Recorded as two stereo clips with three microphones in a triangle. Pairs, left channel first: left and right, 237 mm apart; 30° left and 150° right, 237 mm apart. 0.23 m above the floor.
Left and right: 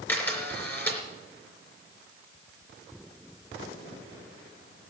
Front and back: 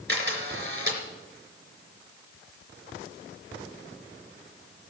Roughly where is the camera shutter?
Behind.